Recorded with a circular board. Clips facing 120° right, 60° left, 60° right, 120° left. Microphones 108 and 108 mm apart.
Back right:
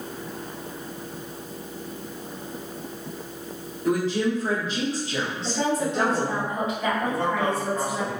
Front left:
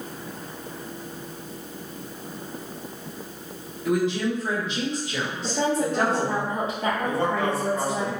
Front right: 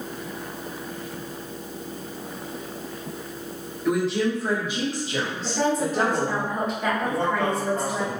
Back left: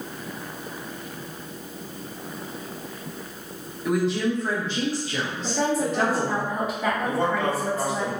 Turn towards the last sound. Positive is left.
turn(degrees=-45)